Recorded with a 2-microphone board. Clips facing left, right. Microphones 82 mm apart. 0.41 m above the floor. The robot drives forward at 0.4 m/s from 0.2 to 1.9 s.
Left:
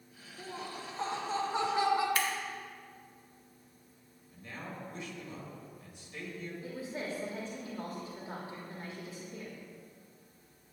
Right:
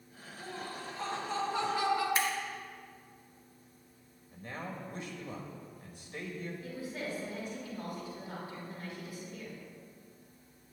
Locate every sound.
0.4 s laughter: 25° left (ahead or behind), 1.6 m
2.1 s scissors: 25° right (ahead or behind), 1.2 m
4.3 s a man speaking: 45° right (ahead or behind), 1.5 m
6.6 s a woman speaking: 30° left (ahead or behind), 1.3 m